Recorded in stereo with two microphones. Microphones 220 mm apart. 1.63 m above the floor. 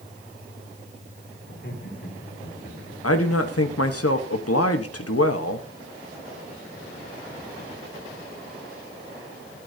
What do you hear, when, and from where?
1.5 s laughter: 55° left (ahead or behind), 5.5 m; by 2.9 s 30° left (ahead or behind), 4 m
3.0 s a man speaking: 85° left, 1.2 m